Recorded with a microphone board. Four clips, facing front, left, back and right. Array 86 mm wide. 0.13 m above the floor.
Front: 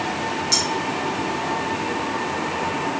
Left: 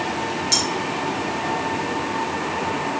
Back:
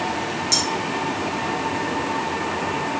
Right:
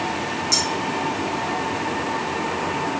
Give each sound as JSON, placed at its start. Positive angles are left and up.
{"t": 0.5, "sound": "cutlery clinking", "azimuth_deg": 95, "distance_m": 2.5}